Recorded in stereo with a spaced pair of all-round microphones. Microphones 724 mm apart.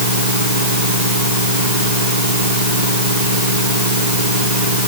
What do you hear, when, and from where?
0.0 s a fan: 75° right (ahead or behind)